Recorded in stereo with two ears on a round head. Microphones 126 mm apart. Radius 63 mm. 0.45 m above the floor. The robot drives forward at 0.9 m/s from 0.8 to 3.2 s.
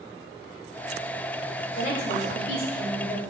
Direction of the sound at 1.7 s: 55° left (ahead or behind).